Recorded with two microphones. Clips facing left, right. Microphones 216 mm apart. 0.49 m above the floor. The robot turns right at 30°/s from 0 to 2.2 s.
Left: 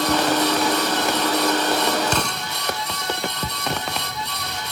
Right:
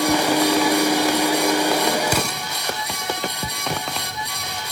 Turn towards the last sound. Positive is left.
turn(degrees=-5)  # may be behind; listen again after turning